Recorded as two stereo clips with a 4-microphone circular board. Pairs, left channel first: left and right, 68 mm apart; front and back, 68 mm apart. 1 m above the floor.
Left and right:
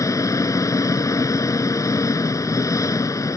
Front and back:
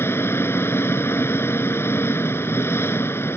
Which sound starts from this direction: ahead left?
An engine running, at 0.0 s.